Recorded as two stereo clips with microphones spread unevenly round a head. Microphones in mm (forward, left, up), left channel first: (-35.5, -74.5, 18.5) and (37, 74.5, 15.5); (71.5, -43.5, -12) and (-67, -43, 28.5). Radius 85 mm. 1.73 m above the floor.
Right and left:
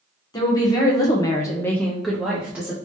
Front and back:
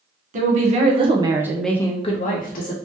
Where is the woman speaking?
175° left, 1.2 m; by 2.8 s 15° right, 0.9 m.